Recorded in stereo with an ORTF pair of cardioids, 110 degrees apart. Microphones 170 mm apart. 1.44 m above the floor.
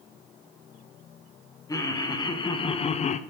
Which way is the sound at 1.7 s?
20° left.